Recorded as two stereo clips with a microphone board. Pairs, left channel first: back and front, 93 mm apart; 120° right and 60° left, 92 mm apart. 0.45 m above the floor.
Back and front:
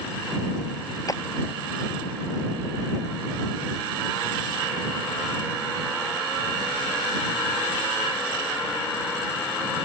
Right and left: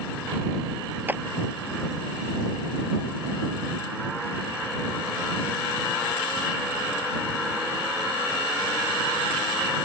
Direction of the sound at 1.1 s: 130° left.